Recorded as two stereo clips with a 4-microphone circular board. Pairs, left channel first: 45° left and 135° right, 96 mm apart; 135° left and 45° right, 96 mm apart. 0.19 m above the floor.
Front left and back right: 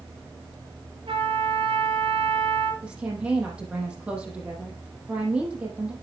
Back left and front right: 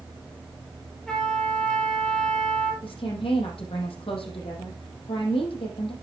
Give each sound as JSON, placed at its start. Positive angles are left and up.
{"t": 1.1, "sound": "a trumpet", "azimuth_deg": -145, "distance_m": 4.0}
{"t": 2.8, "sound": "a woman speaking", "azimuth_deg": 150, "distance_m": 5.5}